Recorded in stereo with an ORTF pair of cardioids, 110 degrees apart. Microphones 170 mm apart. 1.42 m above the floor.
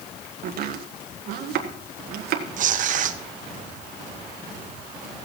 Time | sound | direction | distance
0.4 | chopping | 65° right | 1.7 m
2.6 | tearing paper | 50° right | 1.0 m